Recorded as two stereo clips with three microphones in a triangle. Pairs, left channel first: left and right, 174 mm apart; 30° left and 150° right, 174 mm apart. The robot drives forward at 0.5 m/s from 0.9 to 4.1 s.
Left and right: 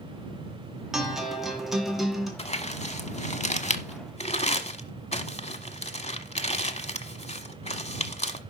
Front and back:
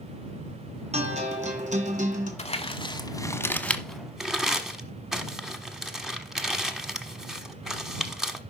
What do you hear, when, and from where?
0.9 s a guitar: 175° right, 1.9 m; by 2.3 s straight behind, 2.5 m
2.4 s crumpling: 60° left, 1.1 m; by 8.4 s 125° left, 1.1 m